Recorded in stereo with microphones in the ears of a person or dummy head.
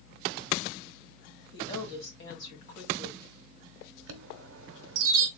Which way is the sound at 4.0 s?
80° right.